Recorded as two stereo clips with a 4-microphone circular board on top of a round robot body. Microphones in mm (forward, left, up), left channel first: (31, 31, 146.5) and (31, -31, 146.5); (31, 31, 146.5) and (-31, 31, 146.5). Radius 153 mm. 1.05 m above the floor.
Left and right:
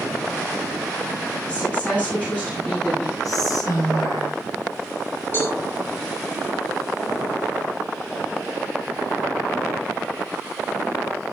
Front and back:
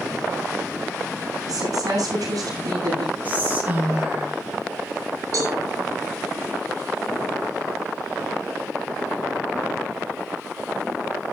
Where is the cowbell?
150° left, 4.5 m.